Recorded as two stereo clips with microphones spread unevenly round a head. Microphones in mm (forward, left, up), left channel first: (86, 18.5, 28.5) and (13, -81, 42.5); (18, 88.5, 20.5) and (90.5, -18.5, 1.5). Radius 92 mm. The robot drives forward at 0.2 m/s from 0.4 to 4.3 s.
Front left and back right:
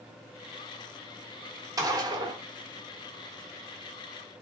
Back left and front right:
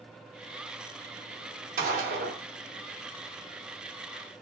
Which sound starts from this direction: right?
A gunshot, at 1.8 s.